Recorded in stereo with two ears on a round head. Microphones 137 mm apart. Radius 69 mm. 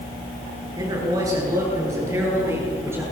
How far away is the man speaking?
About 9.5 m.